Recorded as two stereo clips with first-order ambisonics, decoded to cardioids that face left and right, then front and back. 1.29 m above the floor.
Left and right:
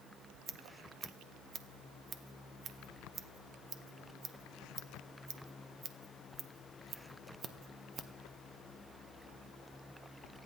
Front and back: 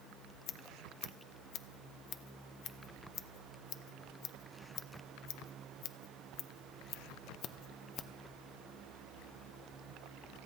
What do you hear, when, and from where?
0.5 s scissors: 35° right, 0.8 m